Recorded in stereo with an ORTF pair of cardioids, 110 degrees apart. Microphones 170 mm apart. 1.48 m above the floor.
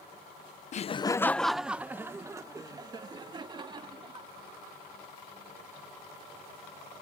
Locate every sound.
0.7 s laughter: 50° left; by 4.3 s 30° right